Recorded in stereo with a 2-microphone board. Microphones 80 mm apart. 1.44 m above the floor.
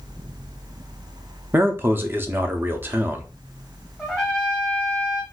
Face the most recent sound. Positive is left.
turn(degrees=-5)  # may be behind; listen again after turning